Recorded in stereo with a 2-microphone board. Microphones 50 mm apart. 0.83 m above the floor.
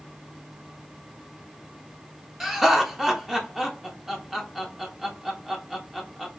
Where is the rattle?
I don't hear a rattle.